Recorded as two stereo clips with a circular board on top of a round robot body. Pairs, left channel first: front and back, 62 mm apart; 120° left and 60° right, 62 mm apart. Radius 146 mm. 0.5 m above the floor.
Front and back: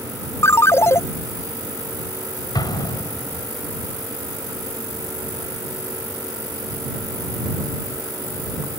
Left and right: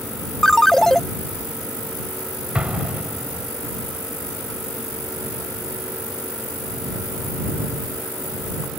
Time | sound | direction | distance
0.4 | a ringtone | 40° left | ?
2.5 | an explosion | 15° left | ?